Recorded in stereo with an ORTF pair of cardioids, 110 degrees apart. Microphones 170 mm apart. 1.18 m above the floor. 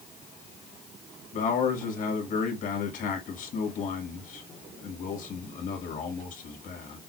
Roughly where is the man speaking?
Ahead left.